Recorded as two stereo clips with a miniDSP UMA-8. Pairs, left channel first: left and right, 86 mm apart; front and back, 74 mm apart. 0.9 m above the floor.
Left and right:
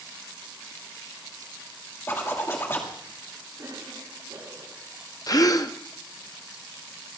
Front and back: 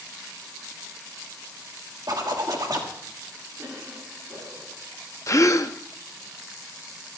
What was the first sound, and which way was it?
A zipper, 155° left.